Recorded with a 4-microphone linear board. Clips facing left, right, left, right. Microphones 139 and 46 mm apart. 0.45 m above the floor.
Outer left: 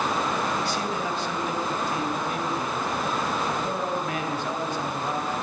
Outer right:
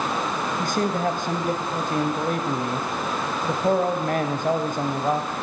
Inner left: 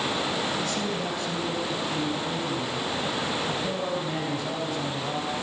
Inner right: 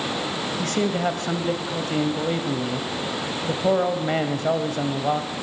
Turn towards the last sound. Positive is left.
turn(degrees=-45)  # may be behind; listen again after turning